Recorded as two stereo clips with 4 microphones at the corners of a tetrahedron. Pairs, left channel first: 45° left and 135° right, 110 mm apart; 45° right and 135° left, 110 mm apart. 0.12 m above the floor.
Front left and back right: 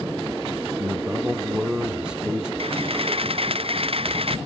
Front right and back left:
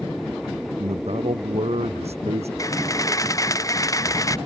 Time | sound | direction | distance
0.8 | a man speaking | 145° left | ?
2.6 | a camera shutter | 105° right | ?